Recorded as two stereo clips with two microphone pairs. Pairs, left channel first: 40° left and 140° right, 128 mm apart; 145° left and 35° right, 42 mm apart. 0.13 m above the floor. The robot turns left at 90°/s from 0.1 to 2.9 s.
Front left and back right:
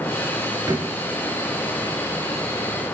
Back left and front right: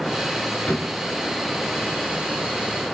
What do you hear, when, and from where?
0.7 s a drawer: 170° left, 1.2 m; by 1.0 s 145° left, 1.2 m